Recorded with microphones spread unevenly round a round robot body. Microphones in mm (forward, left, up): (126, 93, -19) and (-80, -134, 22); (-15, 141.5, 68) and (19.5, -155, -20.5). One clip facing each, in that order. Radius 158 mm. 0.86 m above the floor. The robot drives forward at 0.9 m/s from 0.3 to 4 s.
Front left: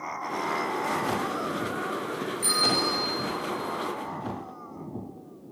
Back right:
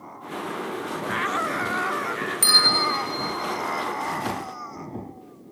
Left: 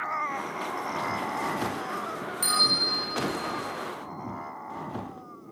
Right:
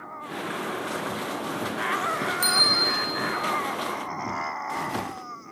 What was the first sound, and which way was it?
A bell, 170° right.